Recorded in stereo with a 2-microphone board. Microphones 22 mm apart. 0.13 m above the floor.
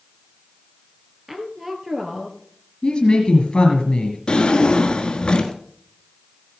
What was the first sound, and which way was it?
A woman speaking, 10° right (ahead or behind).